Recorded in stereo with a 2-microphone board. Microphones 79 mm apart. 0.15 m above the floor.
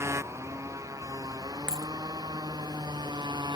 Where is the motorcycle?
40° right (ahead or behind); by 3.6 s 75° right (ahead or behind).